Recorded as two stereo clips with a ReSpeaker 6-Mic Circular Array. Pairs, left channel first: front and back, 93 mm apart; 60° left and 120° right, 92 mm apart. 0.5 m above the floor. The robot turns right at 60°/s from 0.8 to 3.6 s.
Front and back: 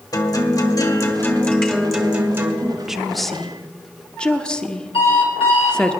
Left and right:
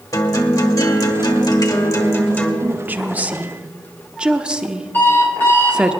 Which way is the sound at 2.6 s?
120° right.